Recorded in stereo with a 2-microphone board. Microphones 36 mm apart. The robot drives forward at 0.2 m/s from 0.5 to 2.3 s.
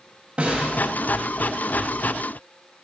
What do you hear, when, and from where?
0.4 s a snare drum: 35° right (ahead or behind), 0.6 m